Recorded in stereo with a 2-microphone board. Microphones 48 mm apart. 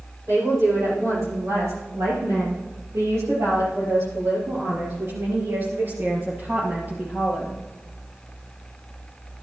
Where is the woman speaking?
65° right (ahead or behind), 6 m; by 7.6 s 30° right (ahead or behind), 3.5 m.